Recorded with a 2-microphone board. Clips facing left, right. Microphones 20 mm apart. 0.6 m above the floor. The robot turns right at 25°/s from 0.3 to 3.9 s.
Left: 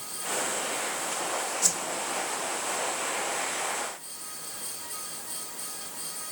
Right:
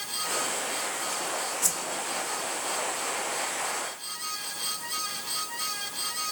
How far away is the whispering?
I don't hear whispering.